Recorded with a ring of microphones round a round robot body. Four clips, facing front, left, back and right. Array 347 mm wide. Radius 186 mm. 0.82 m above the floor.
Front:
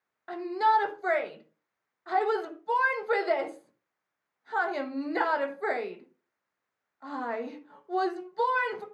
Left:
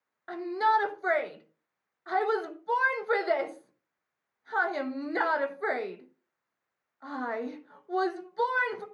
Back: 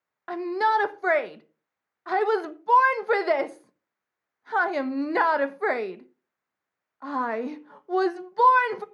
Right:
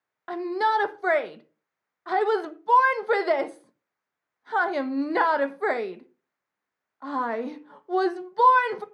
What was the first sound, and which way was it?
A shout, 140° right.